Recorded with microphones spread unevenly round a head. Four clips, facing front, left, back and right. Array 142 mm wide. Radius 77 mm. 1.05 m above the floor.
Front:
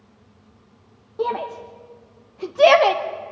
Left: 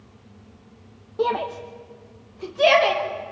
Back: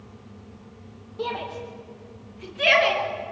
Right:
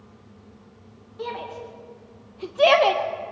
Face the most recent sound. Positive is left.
turn(degrees=-30)